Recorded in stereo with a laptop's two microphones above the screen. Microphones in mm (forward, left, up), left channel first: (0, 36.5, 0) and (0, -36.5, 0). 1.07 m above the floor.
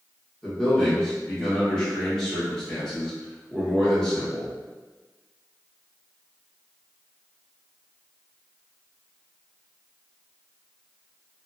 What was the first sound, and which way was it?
A man speaking, 10° left (ahead or behind).